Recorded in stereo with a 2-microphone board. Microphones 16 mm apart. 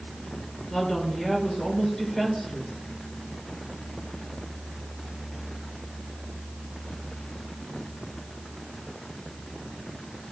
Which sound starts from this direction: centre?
A woman speaking, at 0.7 s.